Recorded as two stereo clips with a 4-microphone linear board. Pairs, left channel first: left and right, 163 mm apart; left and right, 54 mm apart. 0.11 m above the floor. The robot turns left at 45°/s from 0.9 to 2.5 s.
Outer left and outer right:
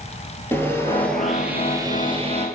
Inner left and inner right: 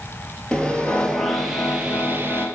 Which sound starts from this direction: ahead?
Sawing, at 0.5 s.